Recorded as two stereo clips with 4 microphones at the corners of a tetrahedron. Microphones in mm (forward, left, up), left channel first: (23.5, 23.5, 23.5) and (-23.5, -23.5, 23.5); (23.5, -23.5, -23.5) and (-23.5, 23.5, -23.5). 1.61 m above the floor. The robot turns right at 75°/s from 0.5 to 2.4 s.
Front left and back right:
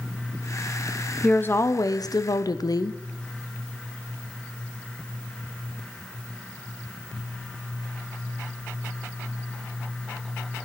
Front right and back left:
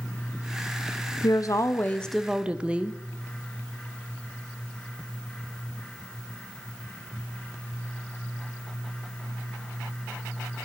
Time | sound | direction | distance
1.2 | a woman speaking | 25° right | 0.8 m